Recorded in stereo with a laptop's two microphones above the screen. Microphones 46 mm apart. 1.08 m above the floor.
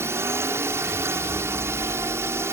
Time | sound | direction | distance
0.0 | a drone | 65° right (ahead or behind) | ?